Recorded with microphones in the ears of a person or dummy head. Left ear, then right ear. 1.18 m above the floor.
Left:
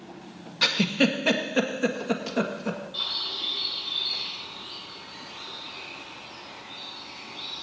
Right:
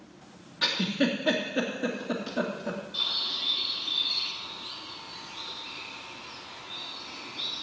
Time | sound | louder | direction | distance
0.6 | a giggle | left 4 dB | 70° left (ahead or behind) | 1.8 m
2.9 | a bird | right 1 dB | 20° left (ahead or behind) | 6 m